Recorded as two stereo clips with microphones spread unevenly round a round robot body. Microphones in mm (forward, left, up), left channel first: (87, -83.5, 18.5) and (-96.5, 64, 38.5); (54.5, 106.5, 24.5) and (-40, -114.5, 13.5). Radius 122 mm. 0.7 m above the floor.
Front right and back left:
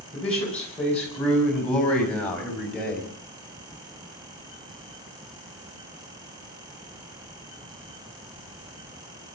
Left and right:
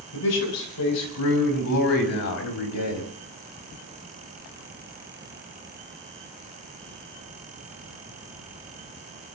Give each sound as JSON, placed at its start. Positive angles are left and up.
{"t": 0.1, "sound": "a man speaking", "azimuth_deg": 45, "distance_m": 7.0}